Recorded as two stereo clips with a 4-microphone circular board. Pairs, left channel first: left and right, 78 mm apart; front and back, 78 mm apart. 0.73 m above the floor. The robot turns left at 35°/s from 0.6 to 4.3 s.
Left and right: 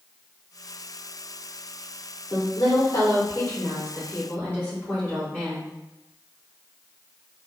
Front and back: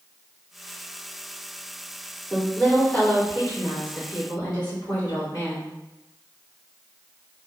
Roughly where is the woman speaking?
Left.